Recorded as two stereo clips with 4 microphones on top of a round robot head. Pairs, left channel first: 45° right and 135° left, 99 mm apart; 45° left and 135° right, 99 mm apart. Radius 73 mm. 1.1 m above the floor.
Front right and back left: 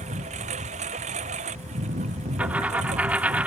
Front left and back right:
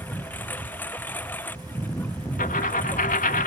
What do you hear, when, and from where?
0.0 s a lawn mower: 120° left
2.4 s a dropped coin: 55° left